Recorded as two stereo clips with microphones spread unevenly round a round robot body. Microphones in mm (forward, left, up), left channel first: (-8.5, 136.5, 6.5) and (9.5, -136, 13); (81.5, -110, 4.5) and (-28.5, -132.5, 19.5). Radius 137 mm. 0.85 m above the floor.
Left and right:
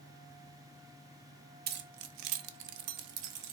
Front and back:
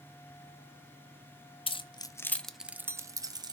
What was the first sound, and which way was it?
Keys jangling, 30° right.